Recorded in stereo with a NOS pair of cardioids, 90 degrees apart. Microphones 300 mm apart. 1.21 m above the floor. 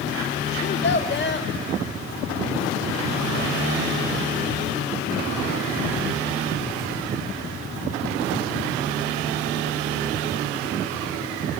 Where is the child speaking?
35° left, 1.6 m.